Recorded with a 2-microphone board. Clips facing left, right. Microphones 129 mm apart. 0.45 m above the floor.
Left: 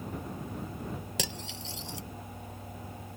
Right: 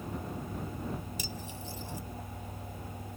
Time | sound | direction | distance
1.2 | cutlery clinking | 85° left | ?